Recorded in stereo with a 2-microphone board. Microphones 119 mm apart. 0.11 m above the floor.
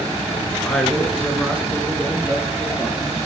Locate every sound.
0.6 s a man speaking: 5° left (ahead or behind), 1.2 m; by 3.1 s 25° right (ahead or behind), 1.9 m